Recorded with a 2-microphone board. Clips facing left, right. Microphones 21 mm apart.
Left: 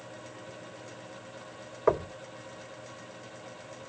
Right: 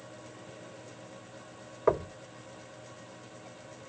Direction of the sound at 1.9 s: 15° left (ahead or behind).